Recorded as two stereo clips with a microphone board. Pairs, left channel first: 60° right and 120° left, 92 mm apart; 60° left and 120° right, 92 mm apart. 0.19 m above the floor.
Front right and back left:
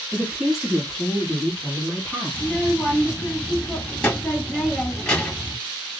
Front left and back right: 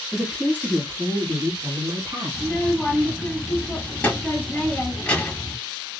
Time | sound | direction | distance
0.1 | a woman speaking | 175° left | 1.2 m
2.3 | a child speaking | 5° left | 0.7 m